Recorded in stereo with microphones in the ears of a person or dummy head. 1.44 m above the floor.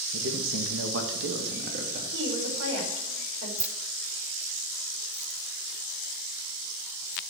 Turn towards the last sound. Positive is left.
turn(degrees=-10)  # may be behind; listen again after turning